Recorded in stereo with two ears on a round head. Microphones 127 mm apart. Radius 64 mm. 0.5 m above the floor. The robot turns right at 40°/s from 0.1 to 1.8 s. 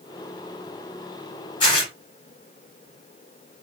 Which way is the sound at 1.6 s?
30° left (ahead or behind).